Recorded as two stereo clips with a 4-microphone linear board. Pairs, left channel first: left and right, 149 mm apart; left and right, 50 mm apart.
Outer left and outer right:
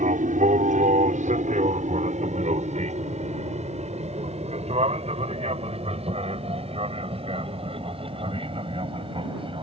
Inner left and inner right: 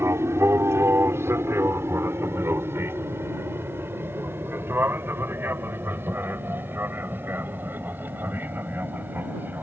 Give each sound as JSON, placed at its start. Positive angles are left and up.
{"t": 0.0, "sound": "an aircraft", "side_deg": -60}